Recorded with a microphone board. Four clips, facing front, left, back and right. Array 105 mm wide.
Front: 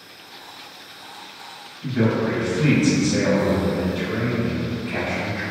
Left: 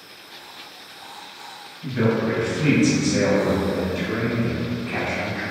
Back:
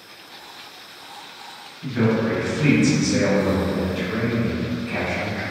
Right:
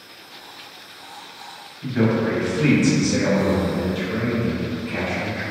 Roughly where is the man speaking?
Behind right.